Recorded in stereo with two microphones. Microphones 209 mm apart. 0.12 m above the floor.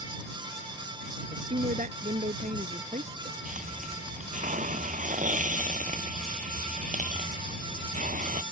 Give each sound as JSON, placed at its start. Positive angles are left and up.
{"t": 1.3, "sound": "a woman speaking", "side_deg": -40}
{"t": 3.5, "sound": "a hiss", "side_deg": -40}